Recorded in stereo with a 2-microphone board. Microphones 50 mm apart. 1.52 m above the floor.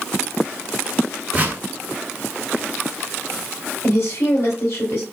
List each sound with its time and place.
1.3 s a whoosh: 25° right (ahead or behind), 1.3 m
3.8 s a woman speaking: 55° left (ahead or behind), 2.0 m